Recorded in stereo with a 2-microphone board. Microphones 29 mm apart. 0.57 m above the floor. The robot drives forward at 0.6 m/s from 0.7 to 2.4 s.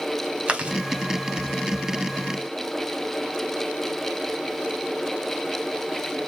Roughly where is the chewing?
Right.